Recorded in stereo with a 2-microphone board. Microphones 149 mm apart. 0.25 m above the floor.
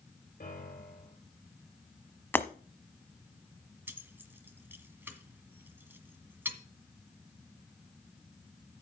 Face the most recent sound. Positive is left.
turn(degrees=-15)  # may be behind; listen again after turning